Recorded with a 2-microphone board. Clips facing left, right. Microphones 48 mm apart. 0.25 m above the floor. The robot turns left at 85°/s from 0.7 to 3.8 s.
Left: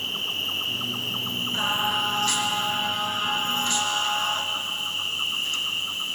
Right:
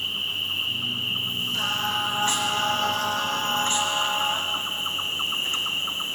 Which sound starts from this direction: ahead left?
Singing, at 1.5 s.